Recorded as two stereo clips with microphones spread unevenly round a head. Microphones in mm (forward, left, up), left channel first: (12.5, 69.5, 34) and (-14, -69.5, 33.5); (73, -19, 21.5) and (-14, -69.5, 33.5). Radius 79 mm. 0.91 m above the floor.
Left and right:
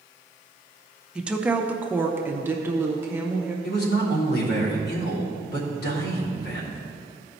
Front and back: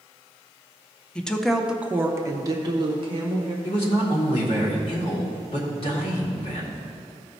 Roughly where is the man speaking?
Left.